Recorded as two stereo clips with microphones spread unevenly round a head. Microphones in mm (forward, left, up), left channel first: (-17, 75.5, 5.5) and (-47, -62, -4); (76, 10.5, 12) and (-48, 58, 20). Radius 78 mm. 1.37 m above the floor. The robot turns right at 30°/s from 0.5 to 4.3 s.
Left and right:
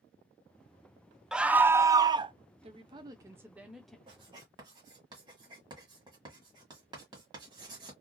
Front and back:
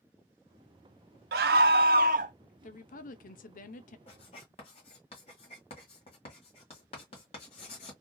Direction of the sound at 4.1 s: 55° right.